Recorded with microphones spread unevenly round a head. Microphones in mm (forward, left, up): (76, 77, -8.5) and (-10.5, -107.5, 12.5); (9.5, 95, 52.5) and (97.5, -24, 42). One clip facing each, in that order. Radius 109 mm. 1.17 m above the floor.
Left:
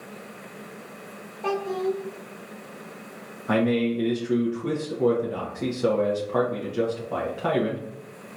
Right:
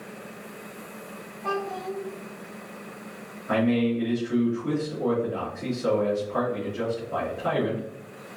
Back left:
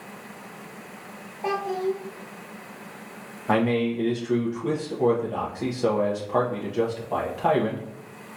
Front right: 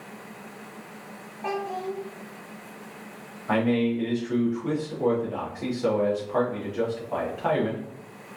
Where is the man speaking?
70° left, 1.0 m.